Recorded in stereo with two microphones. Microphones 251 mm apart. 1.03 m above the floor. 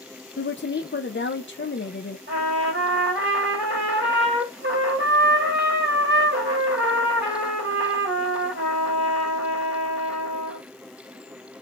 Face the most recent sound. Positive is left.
turn(degrees=-45)  # may be behind; listen again after turning